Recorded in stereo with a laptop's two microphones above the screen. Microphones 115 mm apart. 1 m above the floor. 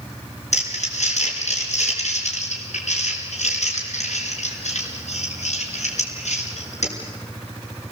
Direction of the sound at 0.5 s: 85° left.